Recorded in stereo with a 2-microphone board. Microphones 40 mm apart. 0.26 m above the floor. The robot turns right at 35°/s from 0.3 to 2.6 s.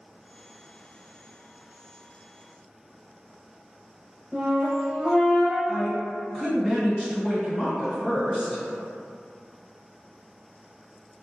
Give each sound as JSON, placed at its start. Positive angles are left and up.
{"t": 4.3, "sound": "a flute", "side_deg": 0, "distance_m": 0.7}
{"t": 5.7, "sound": "a woman speaking", "side_deg": 0, "distance_m": 1.9}